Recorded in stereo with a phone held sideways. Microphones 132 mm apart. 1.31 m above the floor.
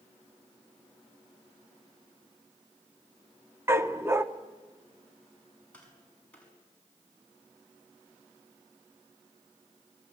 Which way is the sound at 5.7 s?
10° left (ahead or behind).